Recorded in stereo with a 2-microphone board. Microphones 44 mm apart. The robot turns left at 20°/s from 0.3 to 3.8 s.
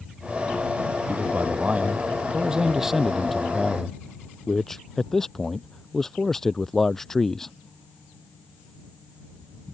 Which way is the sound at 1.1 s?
135° right.